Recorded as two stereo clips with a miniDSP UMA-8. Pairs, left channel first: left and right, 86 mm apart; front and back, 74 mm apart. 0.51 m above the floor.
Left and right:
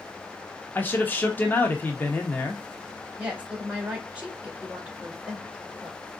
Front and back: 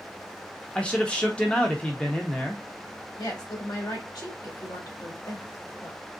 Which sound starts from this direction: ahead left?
A man speaking, at 0.8 s.